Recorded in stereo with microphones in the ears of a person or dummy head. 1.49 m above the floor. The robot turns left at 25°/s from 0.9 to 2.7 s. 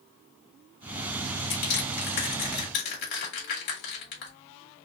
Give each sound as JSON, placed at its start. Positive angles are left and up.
{"t": 1.5, "sound": "crushing", "side_deg": 60, "distance_m": 2.0}